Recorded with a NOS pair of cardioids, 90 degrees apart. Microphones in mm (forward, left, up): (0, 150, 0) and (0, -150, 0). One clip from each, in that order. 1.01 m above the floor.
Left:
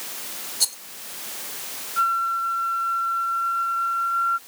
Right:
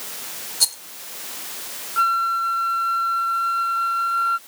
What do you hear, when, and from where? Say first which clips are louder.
0.6 s a rattle: right 4 dB; 10° right
2.0 s a flute: right 3 dB; 50° right